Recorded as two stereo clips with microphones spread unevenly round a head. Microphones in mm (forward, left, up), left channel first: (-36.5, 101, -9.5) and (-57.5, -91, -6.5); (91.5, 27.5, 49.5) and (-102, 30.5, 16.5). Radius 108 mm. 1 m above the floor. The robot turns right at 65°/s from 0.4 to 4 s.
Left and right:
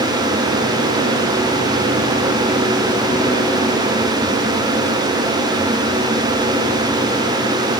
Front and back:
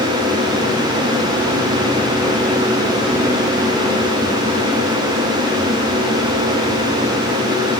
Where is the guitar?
No guitar in this recording.